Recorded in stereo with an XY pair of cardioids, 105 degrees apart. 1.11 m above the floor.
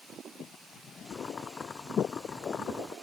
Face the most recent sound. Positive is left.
turn(degrees=40)